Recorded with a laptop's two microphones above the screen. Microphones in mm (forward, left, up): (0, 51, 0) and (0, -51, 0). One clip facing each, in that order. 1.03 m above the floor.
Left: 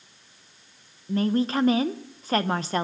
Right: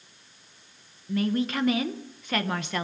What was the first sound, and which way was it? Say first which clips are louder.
A woman speaking: left 3 dB; 35° left (ahead or behind).